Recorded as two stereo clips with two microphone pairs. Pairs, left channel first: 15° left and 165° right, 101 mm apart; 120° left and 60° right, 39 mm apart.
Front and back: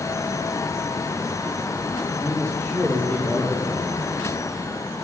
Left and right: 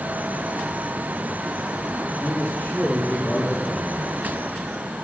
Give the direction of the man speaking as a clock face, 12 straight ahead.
9 o'clock.